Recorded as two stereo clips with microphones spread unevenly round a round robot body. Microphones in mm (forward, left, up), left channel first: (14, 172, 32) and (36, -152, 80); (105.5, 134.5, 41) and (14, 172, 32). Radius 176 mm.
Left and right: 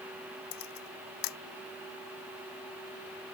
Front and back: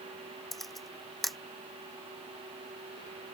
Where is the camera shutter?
65° left.